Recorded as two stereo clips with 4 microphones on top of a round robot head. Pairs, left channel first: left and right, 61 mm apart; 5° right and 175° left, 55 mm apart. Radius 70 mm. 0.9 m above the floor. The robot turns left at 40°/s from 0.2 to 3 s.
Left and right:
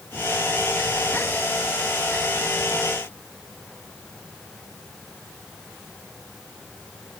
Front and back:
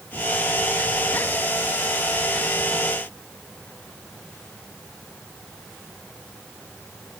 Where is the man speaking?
I don't hear a man speaking.